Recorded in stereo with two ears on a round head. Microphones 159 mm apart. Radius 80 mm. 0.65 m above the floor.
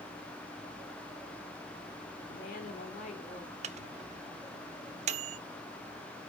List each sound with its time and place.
2.3 s a woman speaking: 55° left (ahead or behind), 2 m; by 3.5 s 35° left (ahead or behind), 2 m
3.6 s a microwave: 40° right (ahead or behind), 0.5 m